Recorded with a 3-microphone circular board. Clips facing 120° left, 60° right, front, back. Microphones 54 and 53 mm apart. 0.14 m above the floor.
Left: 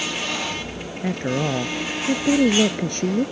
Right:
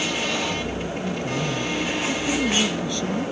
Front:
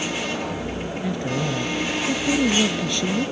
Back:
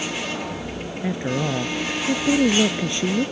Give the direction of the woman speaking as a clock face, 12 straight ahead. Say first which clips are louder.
Left 6 dB, back 2 dB; 8 o'clock.